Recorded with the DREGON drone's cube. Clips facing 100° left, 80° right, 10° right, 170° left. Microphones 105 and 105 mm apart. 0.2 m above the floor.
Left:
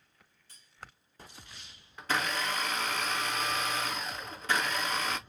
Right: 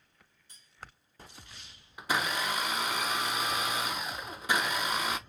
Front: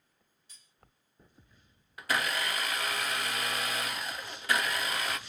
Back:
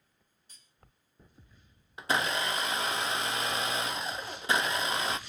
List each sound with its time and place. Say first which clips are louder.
0.5 s cutlery clinking: even, back 1 dB; 150° right, 2 m
2.0 s a blender: right 1 dB, back 2 dB; 145° right, 0.5 m